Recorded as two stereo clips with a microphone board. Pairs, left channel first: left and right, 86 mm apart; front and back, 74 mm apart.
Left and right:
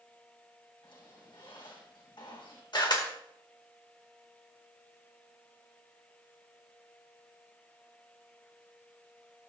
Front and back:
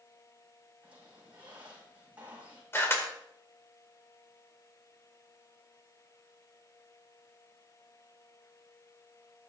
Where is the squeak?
110° left, 5.5 m.